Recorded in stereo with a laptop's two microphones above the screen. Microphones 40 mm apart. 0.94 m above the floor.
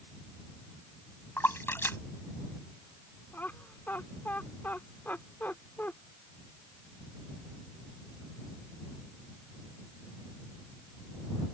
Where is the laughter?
55° left (ahead or behind).